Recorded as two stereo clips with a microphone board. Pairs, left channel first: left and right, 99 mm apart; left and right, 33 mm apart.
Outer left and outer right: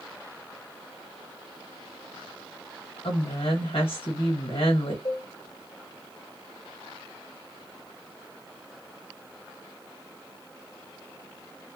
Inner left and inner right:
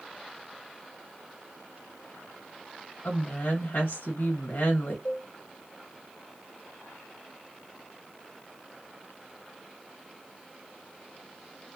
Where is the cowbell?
50° left (ahead or behind), 1.3 m.